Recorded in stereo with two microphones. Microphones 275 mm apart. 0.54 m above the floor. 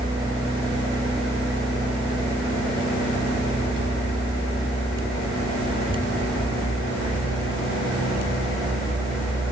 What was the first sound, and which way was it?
Only background noise.